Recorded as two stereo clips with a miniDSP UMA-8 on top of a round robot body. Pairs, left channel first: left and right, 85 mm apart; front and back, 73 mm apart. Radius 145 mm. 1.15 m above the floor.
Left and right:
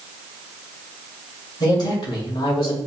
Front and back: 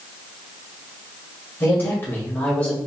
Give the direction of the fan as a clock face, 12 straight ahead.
I don't hear a fan.